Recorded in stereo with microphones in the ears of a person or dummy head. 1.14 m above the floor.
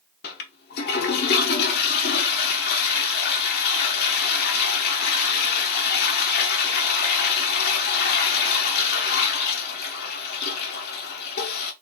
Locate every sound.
0.2 s a toilet flushing: 45° left (ahead or behind), 0.9 m